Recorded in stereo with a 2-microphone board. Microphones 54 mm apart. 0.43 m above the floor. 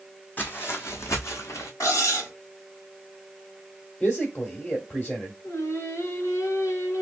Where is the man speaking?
25° left (ahead or behind), 1.2 m.